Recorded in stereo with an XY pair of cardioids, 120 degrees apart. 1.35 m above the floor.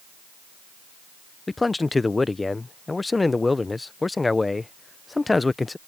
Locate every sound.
1.5 s a man speaking: 15° left